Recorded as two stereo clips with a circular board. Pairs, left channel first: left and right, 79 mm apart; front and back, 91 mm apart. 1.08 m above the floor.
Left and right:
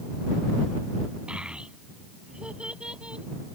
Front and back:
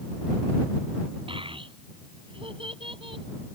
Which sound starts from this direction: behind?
A child speaking, at 1.3 s.